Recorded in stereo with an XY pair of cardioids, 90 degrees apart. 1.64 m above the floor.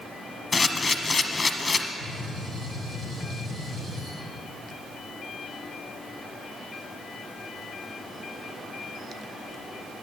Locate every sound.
0.5 s a camera shutter: 30° left, 1.1 m
2.0 s a gunshot: 70° right, 5 m